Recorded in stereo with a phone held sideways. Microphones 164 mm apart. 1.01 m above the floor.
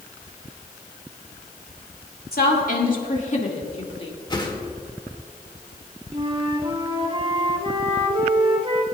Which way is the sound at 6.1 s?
35° right (ahead or behind).